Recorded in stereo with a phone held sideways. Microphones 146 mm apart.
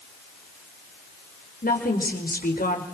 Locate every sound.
1.6 s a woman speaking: 85° left, 5 m